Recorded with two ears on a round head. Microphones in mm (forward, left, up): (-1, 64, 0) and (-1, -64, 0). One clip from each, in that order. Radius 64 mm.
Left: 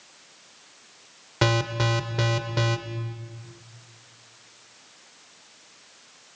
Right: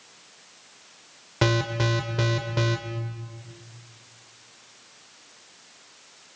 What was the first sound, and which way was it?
An alarm, 10° left (ahead or behind).